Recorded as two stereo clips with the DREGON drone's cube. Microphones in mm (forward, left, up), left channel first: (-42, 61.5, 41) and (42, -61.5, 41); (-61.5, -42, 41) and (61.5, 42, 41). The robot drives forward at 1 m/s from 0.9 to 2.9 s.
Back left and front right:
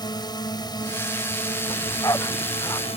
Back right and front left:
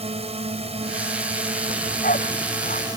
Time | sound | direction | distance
0.0 | a drone | 70° left | ?
1.7 | a dog barking | 165° right | ?